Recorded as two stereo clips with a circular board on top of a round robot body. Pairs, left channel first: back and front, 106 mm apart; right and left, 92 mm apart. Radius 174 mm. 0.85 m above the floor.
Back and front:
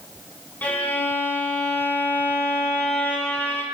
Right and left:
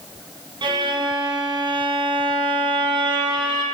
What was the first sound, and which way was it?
A violin, 105° left.